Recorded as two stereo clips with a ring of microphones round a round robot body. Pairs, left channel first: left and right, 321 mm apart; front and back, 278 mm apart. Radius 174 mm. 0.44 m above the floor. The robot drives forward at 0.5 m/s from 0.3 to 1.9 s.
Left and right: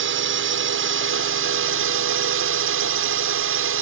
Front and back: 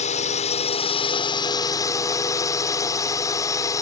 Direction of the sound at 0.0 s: 55° right.